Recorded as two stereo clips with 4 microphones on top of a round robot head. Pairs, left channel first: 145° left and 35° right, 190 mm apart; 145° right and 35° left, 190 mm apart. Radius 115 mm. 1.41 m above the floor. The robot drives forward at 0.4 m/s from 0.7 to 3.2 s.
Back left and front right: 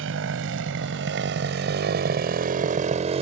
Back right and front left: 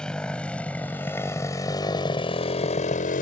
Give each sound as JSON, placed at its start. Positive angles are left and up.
{"t": 0.0, "sound": "a motorcycle", "azimuth_deg": -60}